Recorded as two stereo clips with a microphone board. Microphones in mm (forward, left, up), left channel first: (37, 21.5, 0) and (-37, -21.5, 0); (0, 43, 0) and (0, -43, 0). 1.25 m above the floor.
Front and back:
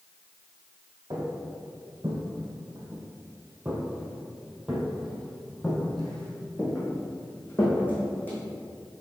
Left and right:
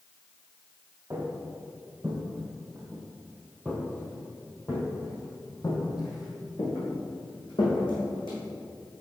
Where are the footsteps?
145° right, 1.9 m; by 8.4 s 95° left, 3 m.